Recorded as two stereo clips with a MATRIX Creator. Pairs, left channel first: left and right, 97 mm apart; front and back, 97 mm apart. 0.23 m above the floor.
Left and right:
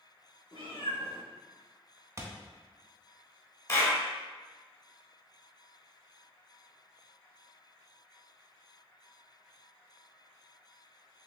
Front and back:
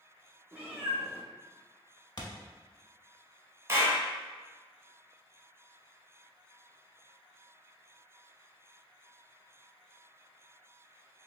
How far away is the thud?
About 0.7 m.